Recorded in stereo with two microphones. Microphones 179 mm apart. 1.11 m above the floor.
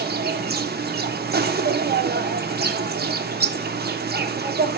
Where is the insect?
60° right (ahead or behind), 0.7 m.